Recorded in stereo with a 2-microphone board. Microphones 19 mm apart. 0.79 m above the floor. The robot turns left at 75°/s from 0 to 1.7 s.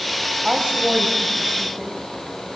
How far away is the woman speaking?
About 5 m.